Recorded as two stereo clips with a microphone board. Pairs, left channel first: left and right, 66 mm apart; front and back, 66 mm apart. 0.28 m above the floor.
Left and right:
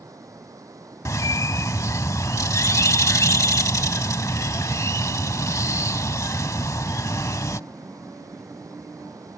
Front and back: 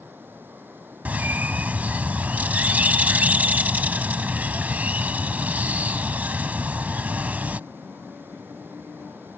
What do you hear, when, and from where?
0.0 s running water: 120° right
1.1 s a bird: 115° left